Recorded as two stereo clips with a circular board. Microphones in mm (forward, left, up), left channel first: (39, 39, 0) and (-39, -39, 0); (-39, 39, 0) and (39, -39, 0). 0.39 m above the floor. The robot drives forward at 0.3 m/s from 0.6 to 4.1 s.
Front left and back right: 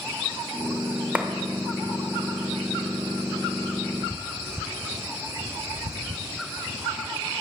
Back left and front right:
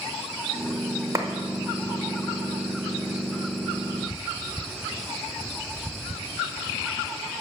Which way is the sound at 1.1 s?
70° right.